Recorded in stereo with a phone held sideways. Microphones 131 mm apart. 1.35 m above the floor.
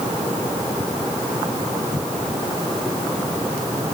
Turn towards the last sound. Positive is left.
No sound to turn to.